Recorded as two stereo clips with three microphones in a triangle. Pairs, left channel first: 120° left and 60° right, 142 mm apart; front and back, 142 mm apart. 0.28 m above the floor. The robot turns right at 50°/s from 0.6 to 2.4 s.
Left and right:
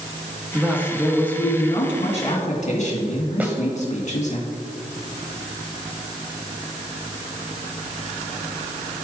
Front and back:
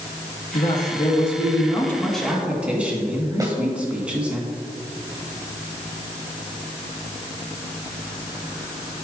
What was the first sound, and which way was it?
A man speaking, 10° left.